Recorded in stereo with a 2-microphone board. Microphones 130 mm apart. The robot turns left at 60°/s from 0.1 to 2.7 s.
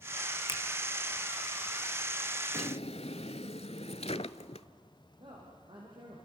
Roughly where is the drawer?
Left.